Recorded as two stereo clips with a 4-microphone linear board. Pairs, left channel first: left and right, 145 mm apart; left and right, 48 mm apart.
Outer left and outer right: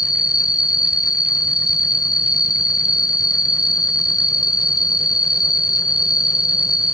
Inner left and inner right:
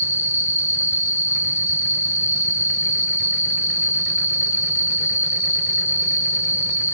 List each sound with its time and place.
0.0 s an insect: 85° left